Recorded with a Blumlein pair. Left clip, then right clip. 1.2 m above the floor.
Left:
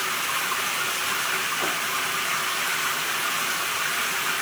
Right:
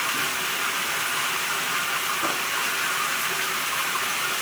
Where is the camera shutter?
I don't hear a camera shutter.